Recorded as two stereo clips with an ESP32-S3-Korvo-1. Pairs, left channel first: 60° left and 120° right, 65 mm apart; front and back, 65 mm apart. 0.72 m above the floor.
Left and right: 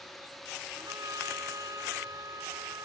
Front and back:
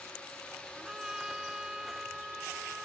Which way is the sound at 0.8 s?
100° right.